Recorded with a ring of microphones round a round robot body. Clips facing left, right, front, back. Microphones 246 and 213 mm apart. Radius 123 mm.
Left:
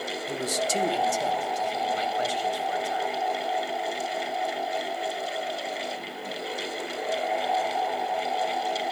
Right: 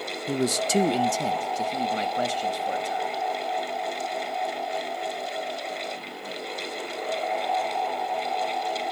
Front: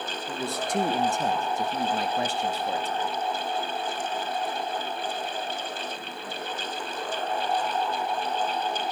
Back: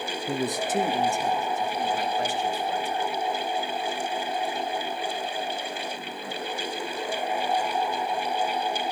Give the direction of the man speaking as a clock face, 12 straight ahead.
4 o'clock.